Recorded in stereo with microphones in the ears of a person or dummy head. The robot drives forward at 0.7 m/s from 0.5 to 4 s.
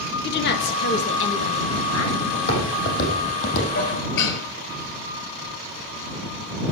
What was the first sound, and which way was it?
A woman speaking, 55° left (ahead or behind).